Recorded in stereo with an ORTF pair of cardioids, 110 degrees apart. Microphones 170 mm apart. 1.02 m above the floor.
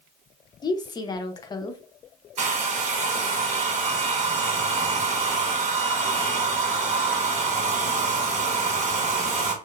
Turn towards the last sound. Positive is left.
turn(degrees=-45)